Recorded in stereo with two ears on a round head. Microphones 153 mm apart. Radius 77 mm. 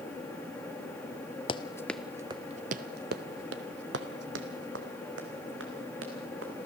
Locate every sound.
1.5 s running footsteps: 30° left (ahead or behind), 0.7 m; by 6.7 s 80° right, 3.5 m